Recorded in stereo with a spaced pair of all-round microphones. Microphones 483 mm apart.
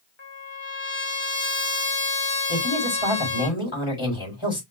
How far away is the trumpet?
About 1.4 m.